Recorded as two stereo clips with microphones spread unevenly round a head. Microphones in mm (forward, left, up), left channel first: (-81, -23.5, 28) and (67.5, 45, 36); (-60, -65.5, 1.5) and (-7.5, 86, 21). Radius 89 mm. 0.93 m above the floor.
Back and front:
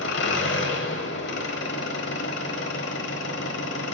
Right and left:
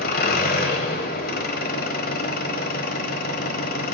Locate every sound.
0.0 s an engine running: 135° right, 1.0 m